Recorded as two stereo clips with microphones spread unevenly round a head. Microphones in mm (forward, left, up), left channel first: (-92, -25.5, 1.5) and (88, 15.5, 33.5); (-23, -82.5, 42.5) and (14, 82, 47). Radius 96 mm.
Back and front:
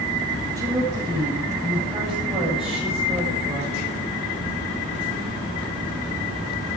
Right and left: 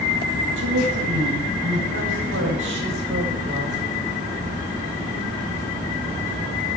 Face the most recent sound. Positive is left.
turn(degrees=65)